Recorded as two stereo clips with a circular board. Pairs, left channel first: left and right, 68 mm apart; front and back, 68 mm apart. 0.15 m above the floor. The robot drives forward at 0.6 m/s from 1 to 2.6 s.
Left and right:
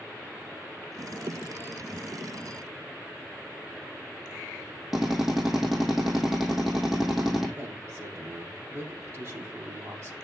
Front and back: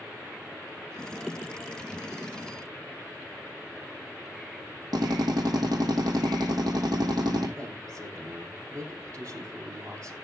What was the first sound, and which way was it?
A drill, 175° right.